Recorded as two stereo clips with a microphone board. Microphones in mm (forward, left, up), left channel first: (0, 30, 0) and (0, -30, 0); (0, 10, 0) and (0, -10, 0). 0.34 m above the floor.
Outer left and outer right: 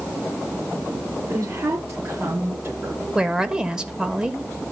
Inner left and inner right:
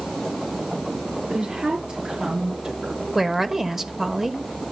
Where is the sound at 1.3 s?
55° right (ahead or behind), 4.5 m; by 3.0 s 40° right (ahead or behind), 4.5 m.